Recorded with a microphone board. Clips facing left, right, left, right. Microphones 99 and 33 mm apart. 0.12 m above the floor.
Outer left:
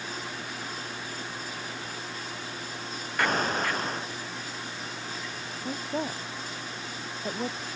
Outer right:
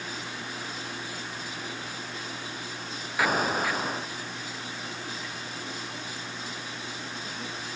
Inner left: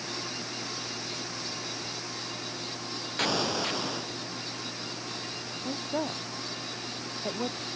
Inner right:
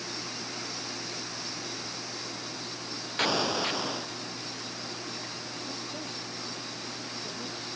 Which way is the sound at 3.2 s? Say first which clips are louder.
Outer right 1 dB, inner right 1 dB; 5° right (ahead or behind).